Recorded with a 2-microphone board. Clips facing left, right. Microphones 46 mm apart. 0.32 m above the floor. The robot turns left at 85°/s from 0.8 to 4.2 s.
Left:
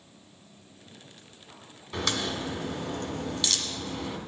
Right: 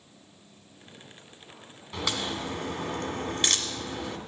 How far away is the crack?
About 1.6 m.